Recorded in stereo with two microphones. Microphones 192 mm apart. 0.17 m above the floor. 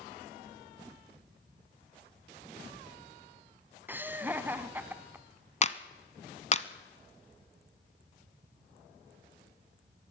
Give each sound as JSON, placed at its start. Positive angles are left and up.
{"t": 3.9, "sound": "laughter", "side_deg": -10, "distance_m": 1.2}
{"t": 5.6, "sound": "a clap", "side_deg": 35, "distance_m": 1.0}